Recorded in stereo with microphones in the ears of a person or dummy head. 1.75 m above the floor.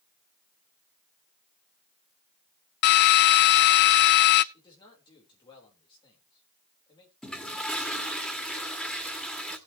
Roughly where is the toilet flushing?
Centre.